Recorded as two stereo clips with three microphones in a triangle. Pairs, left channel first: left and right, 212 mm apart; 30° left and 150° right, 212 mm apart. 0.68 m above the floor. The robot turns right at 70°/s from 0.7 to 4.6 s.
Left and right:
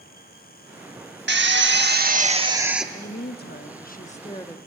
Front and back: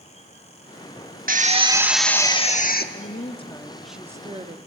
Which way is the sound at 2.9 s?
55° left.